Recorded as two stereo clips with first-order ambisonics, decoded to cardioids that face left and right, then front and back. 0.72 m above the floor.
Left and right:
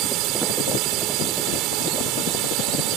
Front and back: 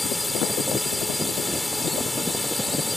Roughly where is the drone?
Right.